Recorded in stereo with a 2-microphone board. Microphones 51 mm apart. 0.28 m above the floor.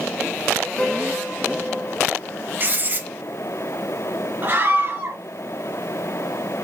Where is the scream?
40° right (ahead or behind), 3 m.